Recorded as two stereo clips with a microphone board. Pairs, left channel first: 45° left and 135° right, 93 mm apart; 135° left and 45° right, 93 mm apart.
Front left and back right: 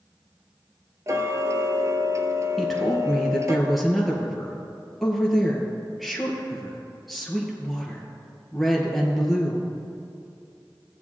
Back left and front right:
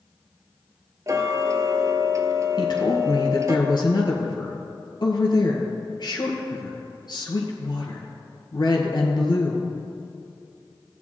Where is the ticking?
90° right, 0.8 m.